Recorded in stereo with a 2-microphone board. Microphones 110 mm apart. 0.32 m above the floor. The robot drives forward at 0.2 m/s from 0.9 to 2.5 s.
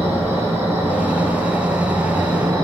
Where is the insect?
25° right (ahead or behind), 1.2 m; by 2.6 s 30° right (ahead or behind), 0.9 m.